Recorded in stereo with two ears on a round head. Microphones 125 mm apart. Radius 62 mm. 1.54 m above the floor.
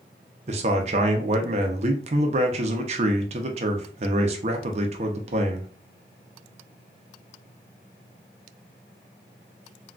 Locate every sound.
0.5 s a man speaking: 50° right (ahead or behind), 0.6 m